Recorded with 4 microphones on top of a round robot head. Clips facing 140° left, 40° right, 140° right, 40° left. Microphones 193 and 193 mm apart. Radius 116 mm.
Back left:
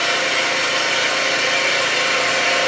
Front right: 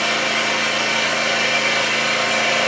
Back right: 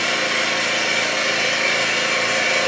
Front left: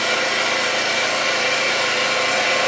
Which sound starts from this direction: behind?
An engine running, at 0.0 s.